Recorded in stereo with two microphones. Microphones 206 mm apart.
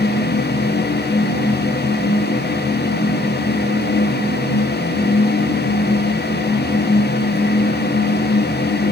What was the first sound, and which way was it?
Only background noise.